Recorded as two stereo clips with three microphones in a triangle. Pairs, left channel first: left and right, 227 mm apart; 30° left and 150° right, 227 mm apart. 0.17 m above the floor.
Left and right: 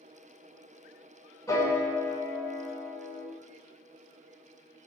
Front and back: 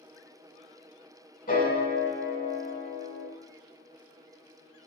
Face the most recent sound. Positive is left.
turn(degrees=25)